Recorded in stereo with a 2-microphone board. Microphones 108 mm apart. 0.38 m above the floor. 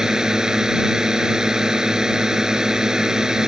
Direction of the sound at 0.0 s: 5° right (ahead or behind).